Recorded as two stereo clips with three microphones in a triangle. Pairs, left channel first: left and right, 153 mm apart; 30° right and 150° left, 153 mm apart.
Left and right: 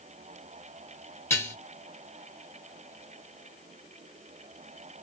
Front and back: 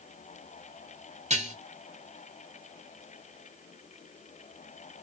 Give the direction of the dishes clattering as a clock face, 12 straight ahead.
7 o'clock.